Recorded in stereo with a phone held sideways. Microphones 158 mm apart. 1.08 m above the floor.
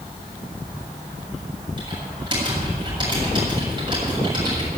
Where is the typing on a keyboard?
30° right (ahead or behind), 7.5 m.